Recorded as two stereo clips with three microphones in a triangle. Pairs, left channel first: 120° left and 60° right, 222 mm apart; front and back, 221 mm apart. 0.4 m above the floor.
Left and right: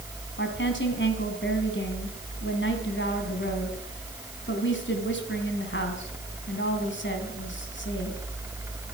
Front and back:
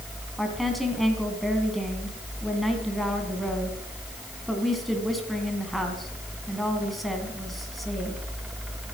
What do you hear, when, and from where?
0.4 s a woman speaking: 90° left, 3 m